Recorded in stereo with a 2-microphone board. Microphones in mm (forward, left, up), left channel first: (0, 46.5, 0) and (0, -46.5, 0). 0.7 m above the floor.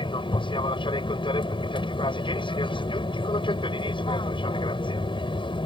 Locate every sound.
0.0 s an aircraft: 65° left (ahead or behind)